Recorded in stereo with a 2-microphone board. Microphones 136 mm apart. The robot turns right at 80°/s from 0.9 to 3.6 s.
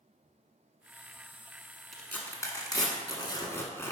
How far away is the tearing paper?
About 1.3 m.